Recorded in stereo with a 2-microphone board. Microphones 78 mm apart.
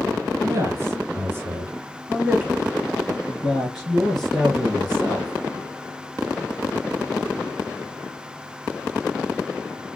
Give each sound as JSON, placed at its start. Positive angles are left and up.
{"t": 0.4, "sound": "a man speaking", "side_deg": -35, "distance_m": 1.7}